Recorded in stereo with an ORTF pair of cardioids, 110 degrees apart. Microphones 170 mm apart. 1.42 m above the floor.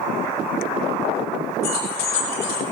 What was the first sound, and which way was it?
Keys jangling, 70° left.